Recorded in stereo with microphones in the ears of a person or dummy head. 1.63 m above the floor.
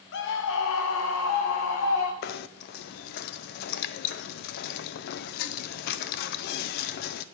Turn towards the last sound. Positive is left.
turn(degrees=55)  # may be behind; listen again after turning